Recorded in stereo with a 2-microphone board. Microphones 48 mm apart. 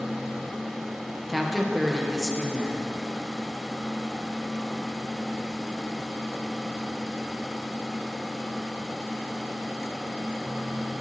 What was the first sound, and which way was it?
A woman speaking, centre (ahead or behind).